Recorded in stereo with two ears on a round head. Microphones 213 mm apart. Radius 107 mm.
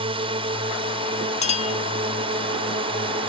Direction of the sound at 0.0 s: 25° right (ahead or behind).